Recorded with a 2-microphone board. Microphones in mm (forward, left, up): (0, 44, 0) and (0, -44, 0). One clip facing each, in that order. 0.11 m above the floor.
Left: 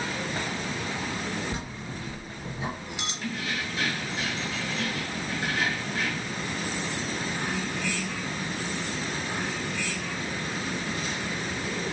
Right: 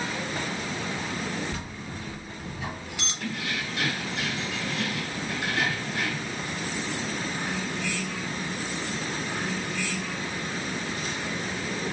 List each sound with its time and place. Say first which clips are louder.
1.5 s a bell: left 1 dB; 20° left (ahead or behind), 2.5 m
3.2 s keys jangling: right 1 dB; 70° right (ahead or behind), 2.5 m